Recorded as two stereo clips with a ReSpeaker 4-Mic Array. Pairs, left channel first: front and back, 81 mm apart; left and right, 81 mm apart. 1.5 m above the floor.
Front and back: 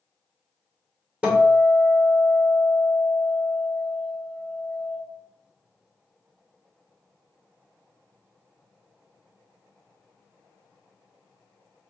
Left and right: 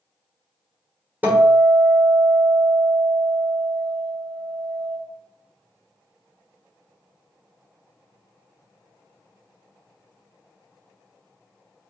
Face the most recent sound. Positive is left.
turn(degrees=-125)